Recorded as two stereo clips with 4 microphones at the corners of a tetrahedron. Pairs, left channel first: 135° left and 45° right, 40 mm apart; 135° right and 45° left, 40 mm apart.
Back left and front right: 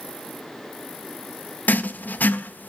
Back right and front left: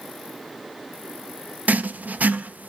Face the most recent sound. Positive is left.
turn(degrees=90)